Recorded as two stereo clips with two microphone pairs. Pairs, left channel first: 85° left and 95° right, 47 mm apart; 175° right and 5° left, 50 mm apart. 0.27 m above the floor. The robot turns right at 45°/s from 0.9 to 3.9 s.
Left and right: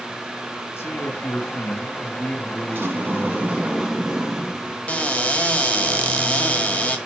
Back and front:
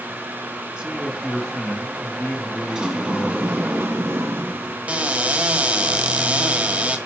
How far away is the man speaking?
About 2.5 m.